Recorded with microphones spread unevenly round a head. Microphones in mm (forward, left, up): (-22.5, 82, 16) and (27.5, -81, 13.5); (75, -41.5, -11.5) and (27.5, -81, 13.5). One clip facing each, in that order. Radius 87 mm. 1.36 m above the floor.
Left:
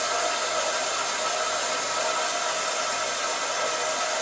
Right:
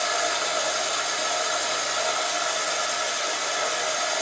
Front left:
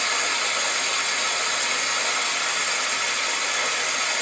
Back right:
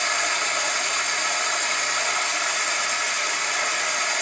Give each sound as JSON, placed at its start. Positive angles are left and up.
{"t": 0.0, "sound": "running water", "azimuth_deg": -120, "distance_m": 1.4}